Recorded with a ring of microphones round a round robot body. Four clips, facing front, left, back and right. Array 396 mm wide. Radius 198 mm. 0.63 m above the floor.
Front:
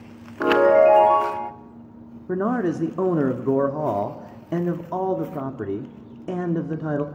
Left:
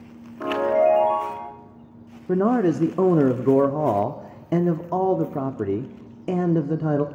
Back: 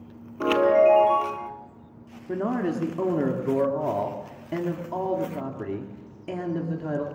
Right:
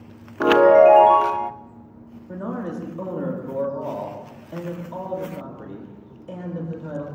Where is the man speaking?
75° left, 1.3 m.